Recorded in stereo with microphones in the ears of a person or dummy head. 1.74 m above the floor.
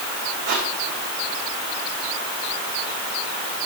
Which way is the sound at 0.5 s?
60° right (ahead or behind).